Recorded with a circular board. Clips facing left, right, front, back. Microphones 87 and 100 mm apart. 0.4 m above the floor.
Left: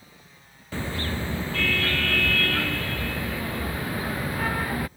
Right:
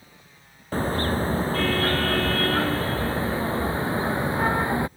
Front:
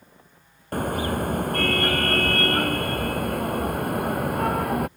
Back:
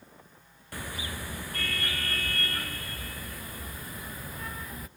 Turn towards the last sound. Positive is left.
turn(degrees=-25)